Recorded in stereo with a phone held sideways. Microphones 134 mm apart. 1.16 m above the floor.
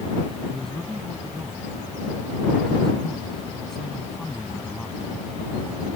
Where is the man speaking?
5° left (ahead or behind).